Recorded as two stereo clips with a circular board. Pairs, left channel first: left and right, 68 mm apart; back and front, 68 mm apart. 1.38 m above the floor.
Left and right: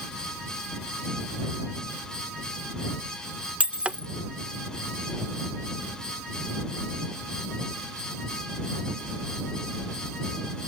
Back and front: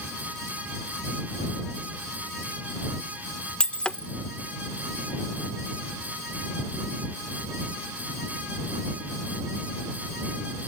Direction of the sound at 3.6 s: 130° right.